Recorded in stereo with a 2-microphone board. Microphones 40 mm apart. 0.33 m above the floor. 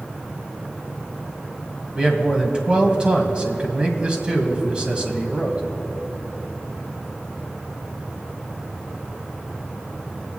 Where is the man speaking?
25° right (ahead or behind), 2.0 m.